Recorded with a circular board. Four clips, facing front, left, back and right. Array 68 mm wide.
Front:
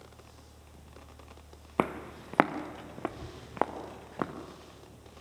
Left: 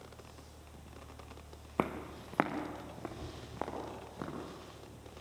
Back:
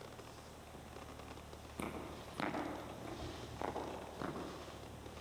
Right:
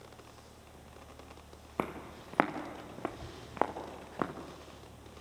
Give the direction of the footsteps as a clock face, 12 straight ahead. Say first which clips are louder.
Left 2 dB, front 14 dB; 12 o'clock.